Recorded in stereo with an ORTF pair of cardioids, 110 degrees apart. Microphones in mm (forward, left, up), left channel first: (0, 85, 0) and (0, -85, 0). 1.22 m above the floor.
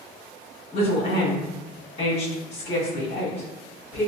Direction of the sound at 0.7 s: 35° left.